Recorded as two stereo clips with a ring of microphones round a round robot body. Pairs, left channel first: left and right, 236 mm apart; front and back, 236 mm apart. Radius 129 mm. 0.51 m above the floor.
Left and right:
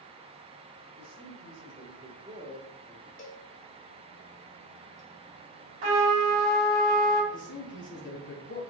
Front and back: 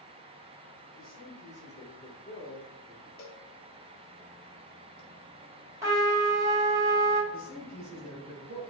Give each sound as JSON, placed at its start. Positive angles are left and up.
{"t": 1.0, "sound": "a man speaking", "azimuth_deg": -45, "distance_m": 1.5}
{"t": 3.2, "sound": "a cowbell", "azimuth_deg": 50, "distance_m": 0.8}
{"t": 5.8, "sound": "a trumpet", "azimuth_deg": -105, "distance_m": 2.0}
{"t": 7.3, "sound": "a man speaking", "azimuth_deg": 125, "distance_m": 2.0}